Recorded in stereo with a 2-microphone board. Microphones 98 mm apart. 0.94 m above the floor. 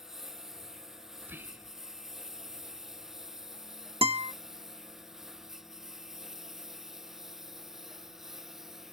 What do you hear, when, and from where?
0.0 s a lawn mower: 5° right (ahead or behind)
1.2 s whispering: 20° right (ahead or behind)
4.0 s a guitar: 75° right (ahead or behind)